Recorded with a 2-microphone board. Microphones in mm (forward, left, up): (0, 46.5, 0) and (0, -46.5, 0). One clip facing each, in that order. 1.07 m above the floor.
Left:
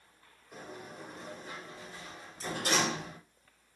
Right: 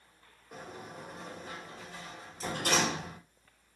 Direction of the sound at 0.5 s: 65° right (ahead or behind).